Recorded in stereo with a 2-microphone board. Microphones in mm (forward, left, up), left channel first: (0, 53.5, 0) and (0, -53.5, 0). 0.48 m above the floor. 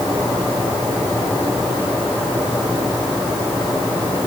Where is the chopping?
No chopping in this recording.